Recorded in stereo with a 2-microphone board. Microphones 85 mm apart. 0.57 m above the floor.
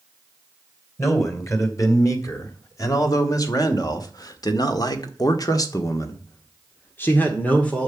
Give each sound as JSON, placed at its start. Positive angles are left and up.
{"t": 1.0, "sound": "a man speaking", "side_deg": 40, "distance_m": 3.5}